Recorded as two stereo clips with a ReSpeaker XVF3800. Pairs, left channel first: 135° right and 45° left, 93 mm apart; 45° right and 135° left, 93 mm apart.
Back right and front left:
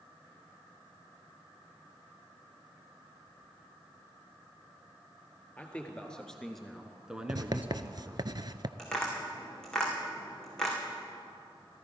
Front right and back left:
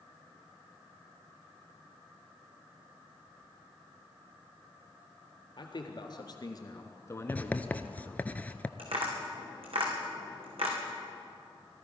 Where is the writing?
25° left, 0.5 m.